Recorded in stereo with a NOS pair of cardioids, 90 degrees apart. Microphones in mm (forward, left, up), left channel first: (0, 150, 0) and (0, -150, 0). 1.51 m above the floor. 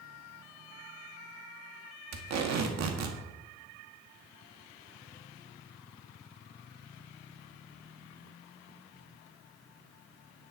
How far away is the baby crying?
I don't hear a baby crying.